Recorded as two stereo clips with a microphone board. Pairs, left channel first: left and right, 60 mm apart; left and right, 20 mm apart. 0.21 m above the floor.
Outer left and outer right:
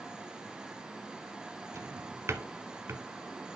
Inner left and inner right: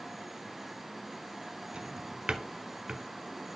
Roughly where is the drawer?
Right.